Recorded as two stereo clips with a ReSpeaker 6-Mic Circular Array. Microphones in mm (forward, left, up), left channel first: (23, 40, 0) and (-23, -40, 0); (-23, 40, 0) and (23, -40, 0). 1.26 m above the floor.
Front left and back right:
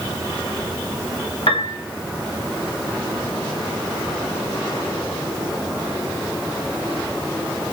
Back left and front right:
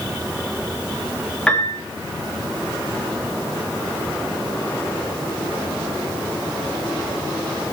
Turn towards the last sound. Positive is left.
turn(degrees=40)